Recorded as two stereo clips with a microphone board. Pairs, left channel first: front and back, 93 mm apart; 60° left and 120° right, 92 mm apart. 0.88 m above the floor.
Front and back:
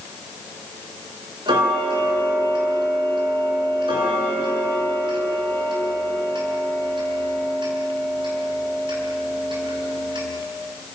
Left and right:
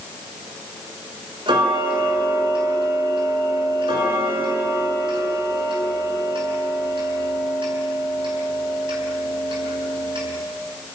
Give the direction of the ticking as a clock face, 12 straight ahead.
5 o'clock.